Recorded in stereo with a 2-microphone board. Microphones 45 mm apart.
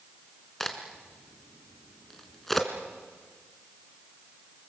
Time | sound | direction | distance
0.6 | a crack | 5° left (ahead or behind) | 2.5 m